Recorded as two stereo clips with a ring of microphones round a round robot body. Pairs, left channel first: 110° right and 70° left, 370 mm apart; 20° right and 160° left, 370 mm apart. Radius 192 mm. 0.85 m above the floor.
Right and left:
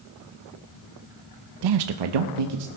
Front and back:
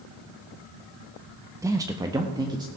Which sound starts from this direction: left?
A man speaking, at 1.6 s.